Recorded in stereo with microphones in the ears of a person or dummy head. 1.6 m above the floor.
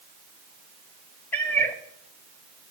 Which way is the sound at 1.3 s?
5° left (ahead or behind).